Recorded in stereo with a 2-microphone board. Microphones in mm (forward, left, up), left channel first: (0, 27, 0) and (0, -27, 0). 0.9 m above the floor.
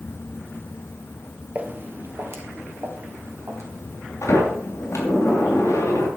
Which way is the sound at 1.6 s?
30° right (ahead or behind).